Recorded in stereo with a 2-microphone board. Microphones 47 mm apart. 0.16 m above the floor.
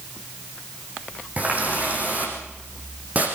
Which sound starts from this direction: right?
A running tap, at 1.4 s.